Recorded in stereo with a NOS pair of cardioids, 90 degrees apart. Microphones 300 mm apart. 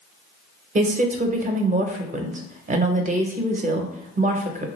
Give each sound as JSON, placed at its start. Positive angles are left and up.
{"t": 0.8, "sound": "a woman speaking", "azimuth_deg": -25, "distance_m": 0.6}